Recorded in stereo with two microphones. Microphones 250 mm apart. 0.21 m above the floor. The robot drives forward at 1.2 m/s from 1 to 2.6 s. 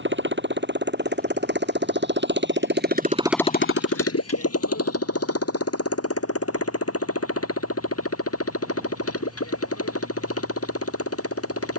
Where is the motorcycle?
50° right (ahead or behind); by 11.8 s 65° left (ahead or behind).